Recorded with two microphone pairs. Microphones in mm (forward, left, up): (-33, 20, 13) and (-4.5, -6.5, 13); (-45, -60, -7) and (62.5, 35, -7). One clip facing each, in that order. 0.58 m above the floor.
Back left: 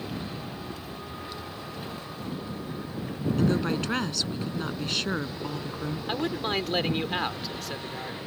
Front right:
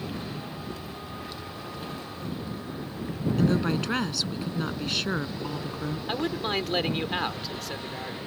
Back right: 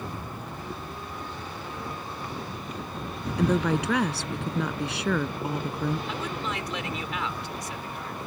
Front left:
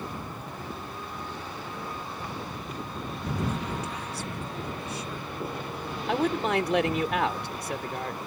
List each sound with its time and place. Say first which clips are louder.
3.4 s a woman speaking: front right 1 dB, back right 10 dB; 130° right
6.1 s a man speaking: even, front left 7 dB; 45° left